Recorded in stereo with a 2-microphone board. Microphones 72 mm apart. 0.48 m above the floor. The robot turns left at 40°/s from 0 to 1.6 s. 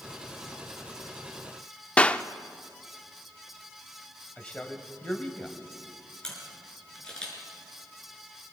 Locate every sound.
2.0 s a clap: 20° left (ahead or behind), 0.6 m
4.4 s a man speaking: 15° left (ahead or behind), 2.5 m
6.2 s a camera shutter: 10° left (ahead or behind), 6.5 m